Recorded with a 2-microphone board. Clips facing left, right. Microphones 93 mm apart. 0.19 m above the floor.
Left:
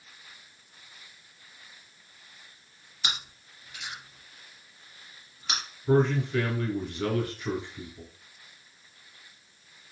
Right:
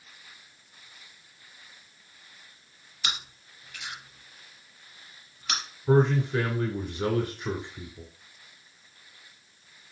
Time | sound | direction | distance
3.0 | chewing | 20° left (ahead or behind) | 3 m
5.9 | a man speaking | 25° right (ahead or behind) | 1.5 m